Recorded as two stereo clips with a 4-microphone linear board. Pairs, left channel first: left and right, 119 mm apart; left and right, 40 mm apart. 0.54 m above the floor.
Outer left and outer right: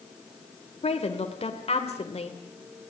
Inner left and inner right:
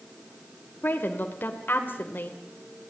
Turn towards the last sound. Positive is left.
turn(degrees=55)  # may be behind; listen again after turning